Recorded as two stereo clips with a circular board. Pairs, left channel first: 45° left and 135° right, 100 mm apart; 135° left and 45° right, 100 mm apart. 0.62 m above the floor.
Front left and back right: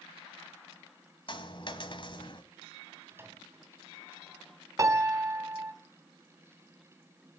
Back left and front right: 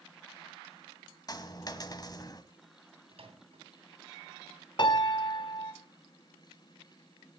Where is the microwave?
65° right, 3 m.